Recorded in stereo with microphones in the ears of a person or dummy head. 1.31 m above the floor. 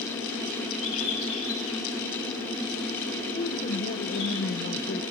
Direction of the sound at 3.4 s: 45° left (ahead or behind).